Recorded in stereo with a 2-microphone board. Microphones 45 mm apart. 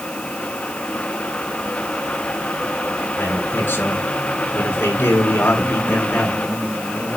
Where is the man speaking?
45° left (ahead or behind), 6 m.